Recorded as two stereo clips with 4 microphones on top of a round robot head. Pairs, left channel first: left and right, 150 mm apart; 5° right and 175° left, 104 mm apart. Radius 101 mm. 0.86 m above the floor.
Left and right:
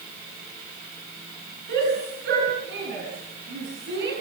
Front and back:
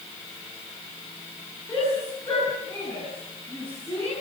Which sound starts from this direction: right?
A shout, at 1.7 s.